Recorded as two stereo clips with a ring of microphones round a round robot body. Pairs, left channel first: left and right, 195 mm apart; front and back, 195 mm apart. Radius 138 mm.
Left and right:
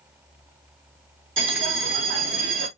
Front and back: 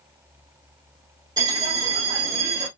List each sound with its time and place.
1.4 s a bell: 105° right, 2 m